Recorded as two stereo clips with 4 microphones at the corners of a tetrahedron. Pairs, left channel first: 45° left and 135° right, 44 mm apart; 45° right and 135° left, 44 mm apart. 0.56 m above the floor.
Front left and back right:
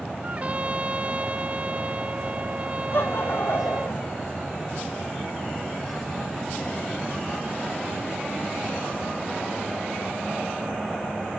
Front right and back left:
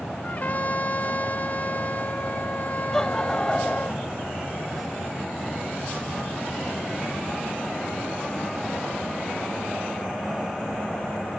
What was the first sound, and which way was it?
A trumpet, 85° right.